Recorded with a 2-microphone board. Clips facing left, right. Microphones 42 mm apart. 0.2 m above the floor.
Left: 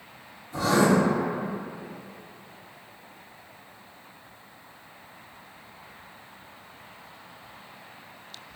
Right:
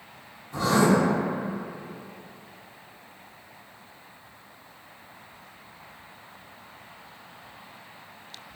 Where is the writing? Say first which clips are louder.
Even; 40° right (ahead or behind), 2.0 m.